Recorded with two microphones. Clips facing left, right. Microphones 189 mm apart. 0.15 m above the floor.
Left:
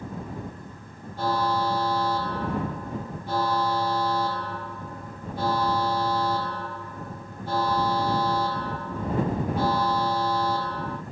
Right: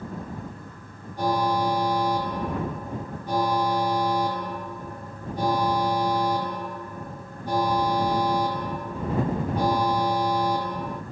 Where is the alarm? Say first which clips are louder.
Right 2 dB; 15° right (ahead or behind).